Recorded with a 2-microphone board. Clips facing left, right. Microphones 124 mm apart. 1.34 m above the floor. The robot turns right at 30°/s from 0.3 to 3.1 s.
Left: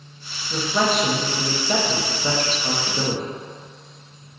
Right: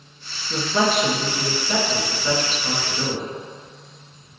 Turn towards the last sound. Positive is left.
turn(degrees=65)